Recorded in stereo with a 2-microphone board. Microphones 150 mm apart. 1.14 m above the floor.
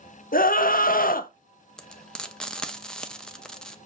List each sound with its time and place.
0.3 s a scream: 65° left (ahead or behind), 0.8 m
1.8 s frying: 5° left (ahead or behind), 0.6 m